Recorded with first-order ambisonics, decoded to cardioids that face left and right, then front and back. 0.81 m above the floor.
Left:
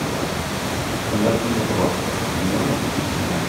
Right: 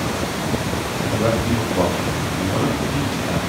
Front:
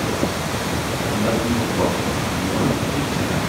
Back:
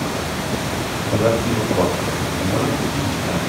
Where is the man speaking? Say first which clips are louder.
Even, back 5 dB; 145° right, 4 m.